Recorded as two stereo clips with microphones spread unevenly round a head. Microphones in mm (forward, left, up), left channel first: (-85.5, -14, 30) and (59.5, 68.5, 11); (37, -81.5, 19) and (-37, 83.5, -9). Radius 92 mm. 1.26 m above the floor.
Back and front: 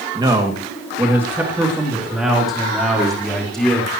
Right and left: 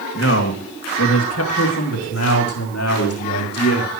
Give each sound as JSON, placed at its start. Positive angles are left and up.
{"t": 0.1, "sound": "a man speaking", "azimuth_deg": -40, "distance_m": 2.0}